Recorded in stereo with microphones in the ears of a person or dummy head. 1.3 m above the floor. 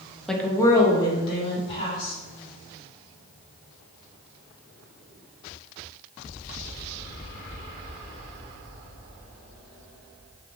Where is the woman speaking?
Centre (ahead or behind), 0.6 m; by 2.1 s 30° left (ahead or behind), 3 m.